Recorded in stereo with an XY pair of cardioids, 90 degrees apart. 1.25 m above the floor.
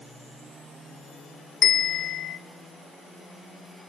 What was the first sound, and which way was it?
A bell, 70° left.